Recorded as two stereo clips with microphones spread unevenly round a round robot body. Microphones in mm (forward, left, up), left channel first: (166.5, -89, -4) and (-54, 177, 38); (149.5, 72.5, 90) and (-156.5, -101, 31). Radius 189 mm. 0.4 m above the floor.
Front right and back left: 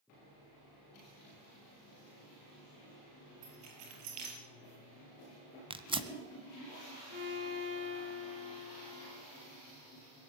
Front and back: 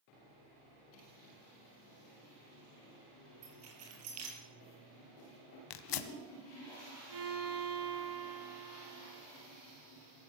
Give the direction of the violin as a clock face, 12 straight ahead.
5 o'clock.